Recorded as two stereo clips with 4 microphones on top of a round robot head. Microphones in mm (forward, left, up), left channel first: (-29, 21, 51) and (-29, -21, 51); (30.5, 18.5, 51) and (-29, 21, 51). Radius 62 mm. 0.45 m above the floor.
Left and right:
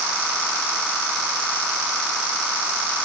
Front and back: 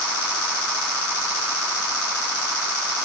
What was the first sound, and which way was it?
Only background noise.